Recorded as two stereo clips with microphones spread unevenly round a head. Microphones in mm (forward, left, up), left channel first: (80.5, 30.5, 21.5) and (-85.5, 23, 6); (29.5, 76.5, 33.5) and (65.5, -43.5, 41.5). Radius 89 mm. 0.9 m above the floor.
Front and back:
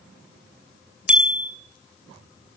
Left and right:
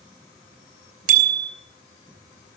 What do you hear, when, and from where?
1.1 s a bicycle bell: 95° right, 3 m